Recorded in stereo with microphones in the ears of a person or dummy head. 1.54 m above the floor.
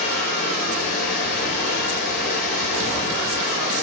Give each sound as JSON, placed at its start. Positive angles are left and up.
{"t": 0.0, "sound": "running water", "side_deg": 60, "distance_m": 2.0}